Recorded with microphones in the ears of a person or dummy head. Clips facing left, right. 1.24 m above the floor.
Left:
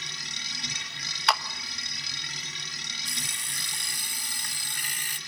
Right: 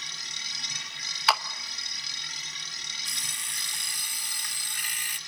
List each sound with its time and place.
0.0 s a machine running: 65° left (ahead or behind), 3.5 m
1.3 s a clap: centre (ahead or behind), 1.0 m
3.0 s an alarm clock: 35° left (ahead or behind), 1.3 m